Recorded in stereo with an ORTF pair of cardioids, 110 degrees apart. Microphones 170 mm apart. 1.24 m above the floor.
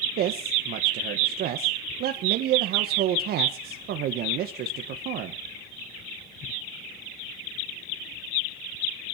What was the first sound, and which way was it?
A man speaking, 70° right.